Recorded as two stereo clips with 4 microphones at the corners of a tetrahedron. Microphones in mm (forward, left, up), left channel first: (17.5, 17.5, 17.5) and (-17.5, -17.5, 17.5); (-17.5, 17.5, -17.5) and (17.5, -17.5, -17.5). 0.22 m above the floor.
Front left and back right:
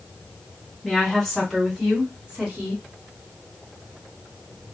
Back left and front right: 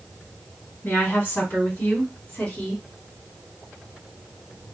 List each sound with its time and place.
0.8 s a woman speaking: 130° left, 1.9 m; by 2.8 s 170° right, 1.6 m